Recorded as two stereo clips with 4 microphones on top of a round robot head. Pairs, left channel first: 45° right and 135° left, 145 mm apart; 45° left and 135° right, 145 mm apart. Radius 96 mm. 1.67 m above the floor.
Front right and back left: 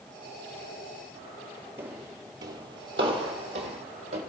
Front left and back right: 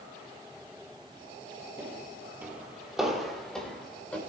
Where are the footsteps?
Straight behind, 2.0 m; by 4.2 s 125° left, 4 m.